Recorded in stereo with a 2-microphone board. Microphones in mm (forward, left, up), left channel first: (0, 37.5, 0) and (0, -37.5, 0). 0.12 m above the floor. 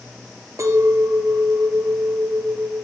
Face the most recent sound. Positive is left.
turn(degrees=-45)  # may be behind; listen again after turning